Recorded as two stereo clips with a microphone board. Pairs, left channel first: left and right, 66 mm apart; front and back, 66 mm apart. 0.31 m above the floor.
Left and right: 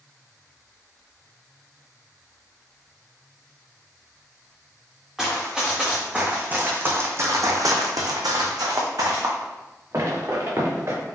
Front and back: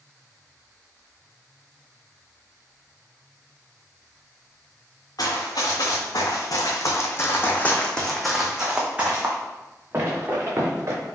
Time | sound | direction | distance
5.2 | running footsteps | straight ahead | 1.7 m